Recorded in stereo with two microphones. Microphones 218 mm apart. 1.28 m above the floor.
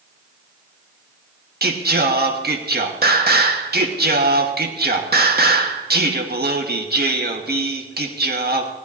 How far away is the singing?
About 1.2 m.